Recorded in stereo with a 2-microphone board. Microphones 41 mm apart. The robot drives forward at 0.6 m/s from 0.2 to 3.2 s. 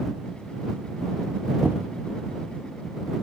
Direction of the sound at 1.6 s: 50° right (ahead or behind).